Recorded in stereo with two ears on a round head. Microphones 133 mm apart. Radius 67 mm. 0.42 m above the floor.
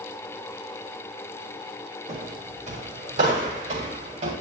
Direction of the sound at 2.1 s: 55° right (ahead or behind).